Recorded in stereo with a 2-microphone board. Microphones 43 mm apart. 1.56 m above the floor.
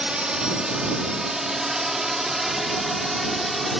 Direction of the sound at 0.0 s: 20° right (ahead or behind).